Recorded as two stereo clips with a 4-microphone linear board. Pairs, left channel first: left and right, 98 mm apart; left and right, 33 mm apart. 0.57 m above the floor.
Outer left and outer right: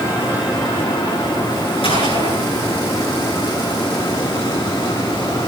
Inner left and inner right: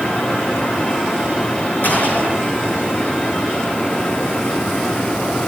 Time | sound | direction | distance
1.8 | a gunshot | 60° left (ahead or behind) | 9.5 m